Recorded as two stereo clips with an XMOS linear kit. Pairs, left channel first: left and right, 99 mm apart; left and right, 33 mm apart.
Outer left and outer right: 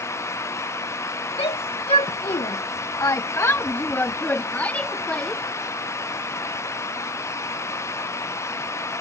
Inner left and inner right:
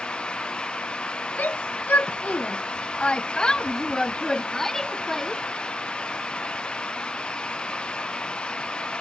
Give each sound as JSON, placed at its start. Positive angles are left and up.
{"t": 1.4, "sound": "a shout", "side_deg": 70}